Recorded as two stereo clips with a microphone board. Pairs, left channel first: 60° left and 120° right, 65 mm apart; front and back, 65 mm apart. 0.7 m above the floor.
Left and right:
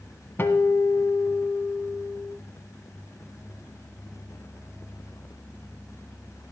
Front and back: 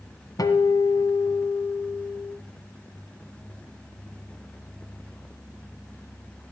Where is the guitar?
5° left, 1.5 m.